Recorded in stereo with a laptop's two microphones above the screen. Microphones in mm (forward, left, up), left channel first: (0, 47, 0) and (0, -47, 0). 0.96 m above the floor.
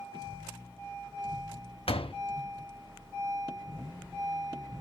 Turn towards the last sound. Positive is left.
turn(degrees=85)